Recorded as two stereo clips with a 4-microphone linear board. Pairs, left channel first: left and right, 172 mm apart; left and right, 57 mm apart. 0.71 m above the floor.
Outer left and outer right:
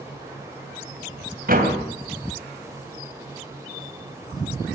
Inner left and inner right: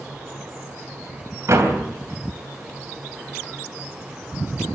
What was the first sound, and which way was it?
A door slam, 60° right (ahead or behind).